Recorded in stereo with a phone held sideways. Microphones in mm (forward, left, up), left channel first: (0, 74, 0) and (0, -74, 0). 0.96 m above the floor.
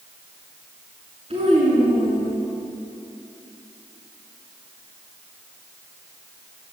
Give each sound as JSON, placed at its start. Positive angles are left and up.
{"t": 1.3, "sound": "a child speaking", "side_deg": -45, "distance_m": 6.0}